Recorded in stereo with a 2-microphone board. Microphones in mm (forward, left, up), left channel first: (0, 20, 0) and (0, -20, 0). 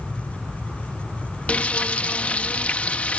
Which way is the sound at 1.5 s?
35° left (ahead or behind).